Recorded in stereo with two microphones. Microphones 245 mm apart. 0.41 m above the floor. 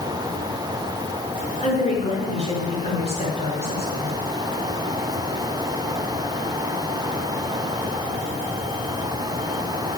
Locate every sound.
1.6 s a woman speaking: 25° left (ahead or behind), 7 m